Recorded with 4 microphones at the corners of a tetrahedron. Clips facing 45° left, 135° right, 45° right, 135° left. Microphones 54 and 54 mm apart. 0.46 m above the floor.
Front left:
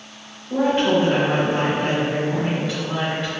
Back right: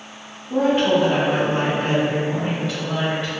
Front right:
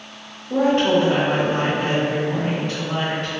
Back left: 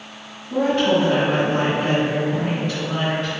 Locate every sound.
0.5 s a woman speaking: 50° right, 1.1 m